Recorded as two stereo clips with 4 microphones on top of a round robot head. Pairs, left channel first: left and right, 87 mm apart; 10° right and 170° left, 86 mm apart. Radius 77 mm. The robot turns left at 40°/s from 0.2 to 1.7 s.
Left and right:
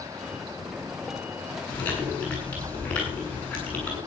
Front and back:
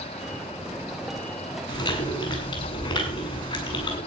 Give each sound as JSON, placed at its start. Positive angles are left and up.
{"t": 1.7, "sound": "chewing", "azimuth_deg": 15, "distance_m": 6.0}